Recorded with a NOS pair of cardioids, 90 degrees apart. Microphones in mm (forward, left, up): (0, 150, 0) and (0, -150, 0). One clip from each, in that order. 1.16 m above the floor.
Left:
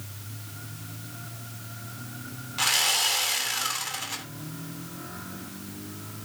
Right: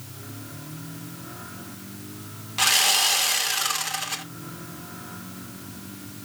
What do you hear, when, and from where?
2.6 s sawing: 25° right, 2.5 m